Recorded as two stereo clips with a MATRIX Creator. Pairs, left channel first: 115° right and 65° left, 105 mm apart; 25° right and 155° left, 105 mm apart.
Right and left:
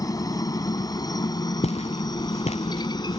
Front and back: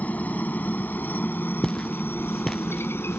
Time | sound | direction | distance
0.0 | a helicopter | 90° right | ?
1.6 | footsteps | 105° right | ?